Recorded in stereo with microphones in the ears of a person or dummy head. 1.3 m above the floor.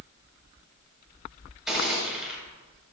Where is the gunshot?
Centre (ahead or behind), 6 m.